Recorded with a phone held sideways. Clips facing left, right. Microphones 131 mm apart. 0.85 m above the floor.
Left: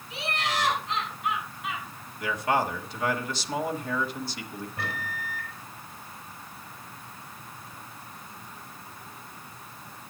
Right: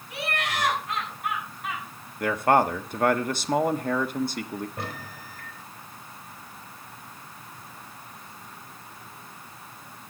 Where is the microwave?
45° right (ahead or behind), 3.5 m.